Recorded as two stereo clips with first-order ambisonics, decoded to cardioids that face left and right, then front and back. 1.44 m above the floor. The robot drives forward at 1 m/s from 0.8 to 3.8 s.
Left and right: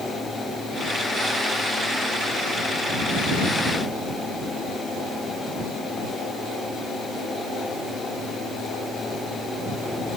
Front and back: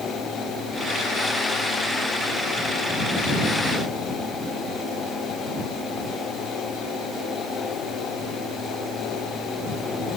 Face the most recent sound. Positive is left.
No sound to turn to.